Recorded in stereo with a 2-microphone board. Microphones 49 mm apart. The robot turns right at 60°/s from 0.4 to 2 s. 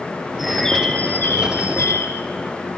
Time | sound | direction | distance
0.4 | a bird | 5° right | 1.7 m